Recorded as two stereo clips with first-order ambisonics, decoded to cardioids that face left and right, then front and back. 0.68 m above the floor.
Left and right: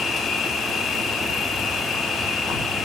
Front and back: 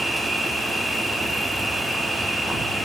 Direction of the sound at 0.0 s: 80° left.